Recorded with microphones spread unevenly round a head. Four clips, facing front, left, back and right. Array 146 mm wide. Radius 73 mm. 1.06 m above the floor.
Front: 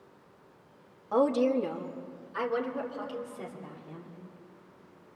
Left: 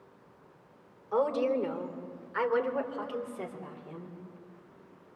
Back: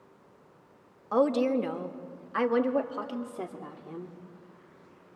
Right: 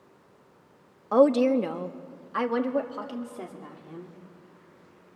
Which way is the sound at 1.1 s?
90° right.